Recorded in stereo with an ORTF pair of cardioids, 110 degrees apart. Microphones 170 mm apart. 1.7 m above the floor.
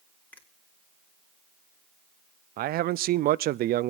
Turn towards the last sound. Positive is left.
turn(degrees=-60)